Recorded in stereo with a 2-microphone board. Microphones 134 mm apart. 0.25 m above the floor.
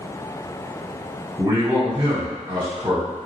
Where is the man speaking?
35° right (ahead or behind), 2.0 m.